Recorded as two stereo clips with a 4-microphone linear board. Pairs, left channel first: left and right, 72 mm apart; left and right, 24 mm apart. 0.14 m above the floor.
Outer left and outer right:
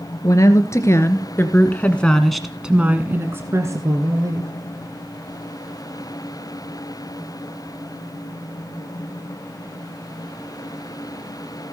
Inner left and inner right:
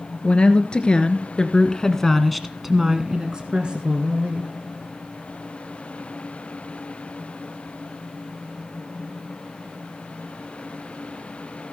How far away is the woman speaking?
About 2 m.